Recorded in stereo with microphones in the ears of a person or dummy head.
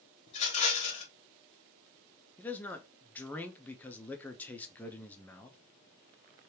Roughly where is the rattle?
Left.